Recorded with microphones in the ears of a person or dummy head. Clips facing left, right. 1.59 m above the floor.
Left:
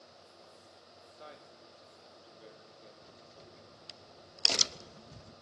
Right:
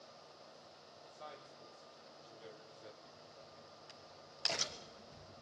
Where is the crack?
55° left (ahead or behind), 0.9 m.